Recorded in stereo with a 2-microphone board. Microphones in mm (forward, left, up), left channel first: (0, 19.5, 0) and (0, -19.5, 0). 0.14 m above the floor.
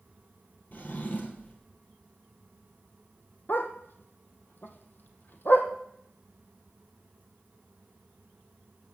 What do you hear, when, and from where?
0.7 s a drawer: 45° left (ahead or behind), 2.5 m
3.5 s a dog barking: 55° left (ahead or behind), 1.7 m